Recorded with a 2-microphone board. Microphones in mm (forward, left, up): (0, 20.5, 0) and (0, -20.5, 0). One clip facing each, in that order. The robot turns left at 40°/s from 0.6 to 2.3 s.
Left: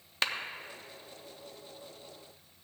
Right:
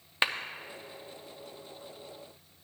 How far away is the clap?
About 0.6 m.